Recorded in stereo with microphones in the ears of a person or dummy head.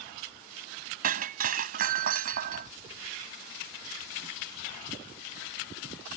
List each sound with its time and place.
1.0 s breaking glass: 50° right (ahead or behind)